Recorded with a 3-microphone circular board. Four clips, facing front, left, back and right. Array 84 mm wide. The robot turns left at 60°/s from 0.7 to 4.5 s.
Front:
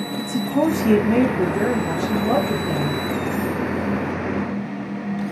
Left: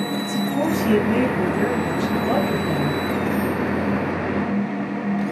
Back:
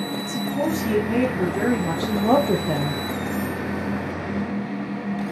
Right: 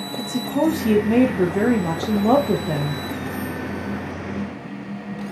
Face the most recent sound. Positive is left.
turn(degrees=100)